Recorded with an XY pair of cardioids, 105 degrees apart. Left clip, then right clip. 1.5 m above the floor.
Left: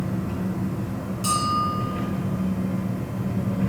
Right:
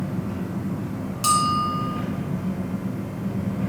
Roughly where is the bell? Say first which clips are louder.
Right 3 dB; ahead right.